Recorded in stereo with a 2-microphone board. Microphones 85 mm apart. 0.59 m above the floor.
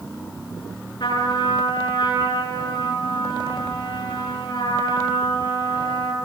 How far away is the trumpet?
About 9.5 m.